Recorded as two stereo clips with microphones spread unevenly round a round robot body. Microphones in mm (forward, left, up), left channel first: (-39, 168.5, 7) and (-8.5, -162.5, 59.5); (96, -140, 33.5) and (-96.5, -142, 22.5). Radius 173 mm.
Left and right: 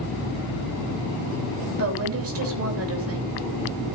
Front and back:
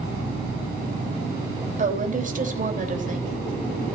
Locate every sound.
1.8 s a woman speaking: 135° right, 3.5 m